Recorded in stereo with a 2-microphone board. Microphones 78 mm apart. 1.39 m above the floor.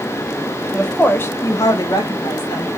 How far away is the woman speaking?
About 0.7 m.